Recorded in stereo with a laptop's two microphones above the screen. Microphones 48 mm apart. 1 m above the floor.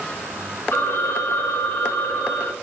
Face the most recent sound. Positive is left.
turn(degrees=50)  # may be behind; listen again after turning